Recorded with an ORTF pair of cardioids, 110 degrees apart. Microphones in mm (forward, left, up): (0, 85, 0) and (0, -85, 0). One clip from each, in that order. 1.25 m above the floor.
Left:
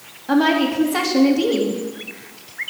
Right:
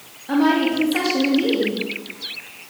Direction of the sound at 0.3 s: 30° left.